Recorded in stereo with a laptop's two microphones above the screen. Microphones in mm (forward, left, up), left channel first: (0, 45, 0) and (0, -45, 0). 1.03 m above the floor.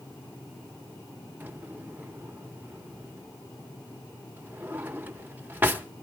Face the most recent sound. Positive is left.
turn(degrees=-20)  # may be behind; listen again after turning